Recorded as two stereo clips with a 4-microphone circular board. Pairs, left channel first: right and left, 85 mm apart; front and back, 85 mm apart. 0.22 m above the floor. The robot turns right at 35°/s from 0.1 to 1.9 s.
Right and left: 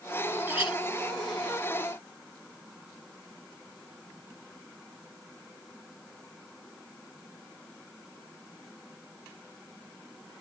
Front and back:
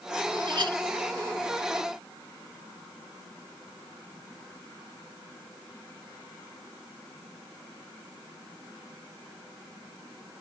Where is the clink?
155° left, 1.5 m; by 0.8 s 165° left, 1.5 m.